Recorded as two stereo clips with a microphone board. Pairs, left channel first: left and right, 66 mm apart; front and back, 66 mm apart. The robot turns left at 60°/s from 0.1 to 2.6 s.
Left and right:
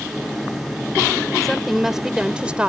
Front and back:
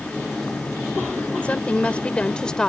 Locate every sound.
1.4 s a woman speaking: 10° left; by 2.7 s 60° right